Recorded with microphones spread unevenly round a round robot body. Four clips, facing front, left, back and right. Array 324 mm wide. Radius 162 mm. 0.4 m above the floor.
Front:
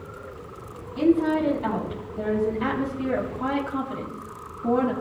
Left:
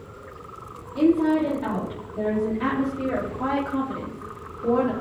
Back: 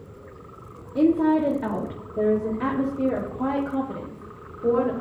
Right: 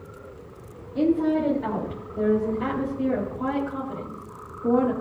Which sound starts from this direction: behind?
A woman speaking, at 0.9 s.